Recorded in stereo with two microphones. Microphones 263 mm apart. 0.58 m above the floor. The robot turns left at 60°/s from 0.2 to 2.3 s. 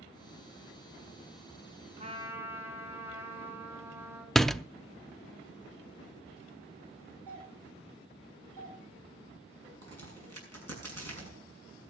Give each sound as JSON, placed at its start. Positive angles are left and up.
{"t": 2.0, "sound": "a trumpet", "side_deg": -30, "distance_m": 3.5}
{"t": 4.3, "sound": "a door slam", "side_deg": 0, "distance_m": 0.6}
{"t": 7.3, "sound": "a doorbell", "side_deg": 30, "distance_m": 7.0}
{"t": 9.8, "sound": "a crack", "side_deg": -65, "distance_m": 6.5}